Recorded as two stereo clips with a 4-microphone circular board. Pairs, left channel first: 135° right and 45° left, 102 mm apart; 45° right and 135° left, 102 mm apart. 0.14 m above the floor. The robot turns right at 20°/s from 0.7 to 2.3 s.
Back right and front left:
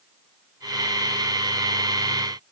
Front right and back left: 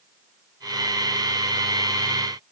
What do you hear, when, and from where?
Only background noise.